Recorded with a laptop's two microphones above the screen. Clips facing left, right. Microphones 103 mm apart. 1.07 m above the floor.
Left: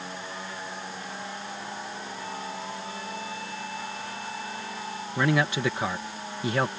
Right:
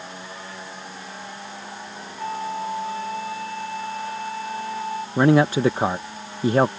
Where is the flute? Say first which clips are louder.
Right 12 dB; 45° right (ahead or behind).